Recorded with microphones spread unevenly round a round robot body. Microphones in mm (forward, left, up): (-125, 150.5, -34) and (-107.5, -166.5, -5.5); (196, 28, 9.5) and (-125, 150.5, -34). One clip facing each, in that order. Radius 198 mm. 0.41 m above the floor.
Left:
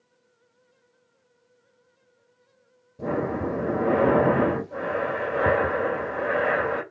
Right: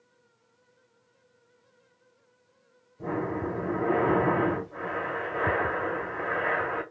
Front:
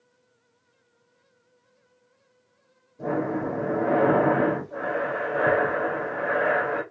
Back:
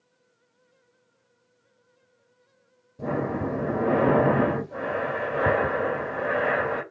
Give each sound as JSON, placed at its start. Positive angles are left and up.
{"t": 3.0, "sound": "breathing", "azimuth_deg": 110, "distance_m": 2.5}